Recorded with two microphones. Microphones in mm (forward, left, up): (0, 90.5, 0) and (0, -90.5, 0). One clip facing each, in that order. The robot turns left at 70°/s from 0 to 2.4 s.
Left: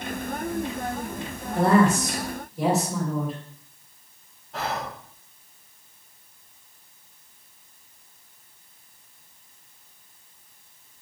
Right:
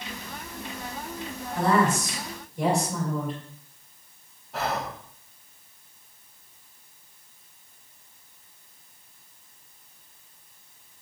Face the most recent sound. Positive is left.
turn(degrees=-5)  # may be behind; listen again after turning